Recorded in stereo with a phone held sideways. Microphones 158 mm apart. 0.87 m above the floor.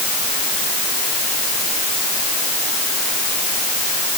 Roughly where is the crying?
I don't hear crying.